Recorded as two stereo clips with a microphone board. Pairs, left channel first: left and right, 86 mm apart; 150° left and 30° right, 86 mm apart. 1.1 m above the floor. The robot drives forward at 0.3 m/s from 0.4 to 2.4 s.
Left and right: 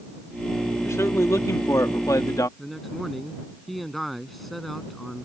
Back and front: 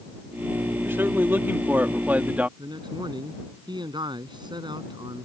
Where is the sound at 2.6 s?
Straight ahead.